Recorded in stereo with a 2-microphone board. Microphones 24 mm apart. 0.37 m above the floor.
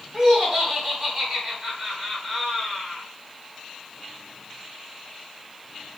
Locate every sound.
0.1 s laughter: 20° right (ahead or behind), 1.4 m